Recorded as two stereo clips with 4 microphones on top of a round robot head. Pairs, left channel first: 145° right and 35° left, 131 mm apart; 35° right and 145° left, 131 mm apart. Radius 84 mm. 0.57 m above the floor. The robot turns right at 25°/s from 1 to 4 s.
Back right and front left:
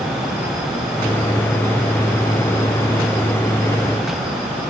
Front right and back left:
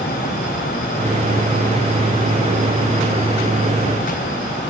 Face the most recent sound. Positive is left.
No sound to turn to.